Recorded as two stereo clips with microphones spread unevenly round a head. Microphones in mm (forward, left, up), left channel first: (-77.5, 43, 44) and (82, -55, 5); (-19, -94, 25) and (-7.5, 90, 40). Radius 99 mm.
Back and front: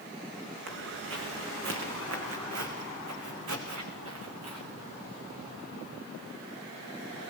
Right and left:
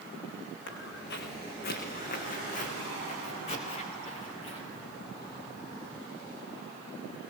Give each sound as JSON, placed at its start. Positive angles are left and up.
{"t": 0.7, "sound": "footsteps", "azimuth_deg": -60, "distance_m": 6.0}